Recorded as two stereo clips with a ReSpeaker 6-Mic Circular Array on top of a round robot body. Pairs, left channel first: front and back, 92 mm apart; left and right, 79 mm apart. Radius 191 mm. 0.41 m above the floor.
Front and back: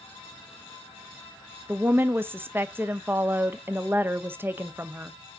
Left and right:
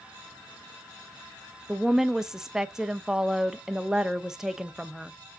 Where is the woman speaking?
165° right, 0.7 m.